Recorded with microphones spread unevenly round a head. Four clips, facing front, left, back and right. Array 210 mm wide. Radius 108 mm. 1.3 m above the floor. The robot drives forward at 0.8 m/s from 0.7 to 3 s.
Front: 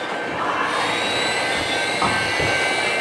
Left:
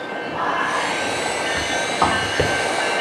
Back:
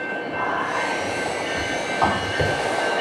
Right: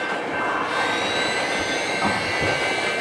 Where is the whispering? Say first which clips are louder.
Left 5 dB, front 2 dB; 60° left, 4.5 m; by 2.5 s 75° left, 4 m.